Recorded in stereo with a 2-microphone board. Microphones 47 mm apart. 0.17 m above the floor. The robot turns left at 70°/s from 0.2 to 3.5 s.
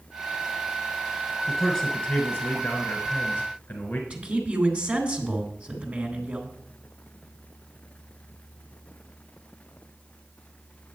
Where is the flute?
I don't hear a flute.